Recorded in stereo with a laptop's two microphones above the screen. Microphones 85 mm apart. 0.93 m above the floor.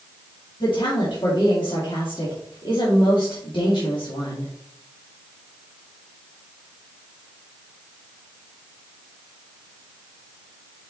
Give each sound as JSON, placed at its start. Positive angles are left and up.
{"t": 0.6, "sound": "a woman speaking", "side_deg": 75, "distance_m": 2.0}